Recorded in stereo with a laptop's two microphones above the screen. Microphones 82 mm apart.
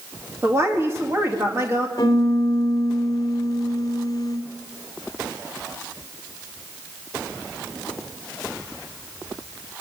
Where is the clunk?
No clunk in this recording.